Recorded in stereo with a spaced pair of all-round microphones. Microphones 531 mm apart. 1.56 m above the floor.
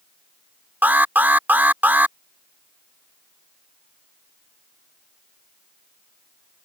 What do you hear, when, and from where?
0.8 s an alarm: 5° right (ahead or behind)